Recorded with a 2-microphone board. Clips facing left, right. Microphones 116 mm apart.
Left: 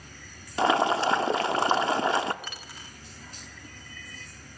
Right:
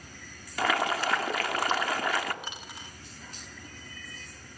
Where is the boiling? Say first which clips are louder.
Left 5 dB; 25° left (ahead or behind), 1.2 m.